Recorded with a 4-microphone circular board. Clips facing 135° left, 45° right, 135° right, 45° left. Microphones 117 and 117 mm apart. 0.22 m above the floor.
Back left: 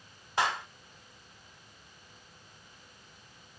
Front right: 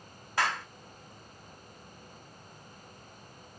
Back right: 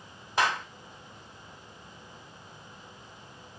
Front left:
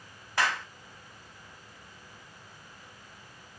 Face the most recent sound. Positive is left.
turn(degrees=180)